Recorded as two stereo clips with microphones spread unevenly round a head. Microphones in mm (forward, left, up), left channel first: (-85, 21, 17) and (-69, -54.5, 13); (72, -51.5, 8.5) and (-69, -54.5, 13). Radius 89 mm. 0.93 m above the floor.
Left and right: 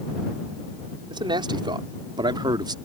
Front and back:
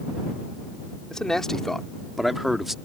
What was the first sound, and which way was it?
A man speaking, 85° right.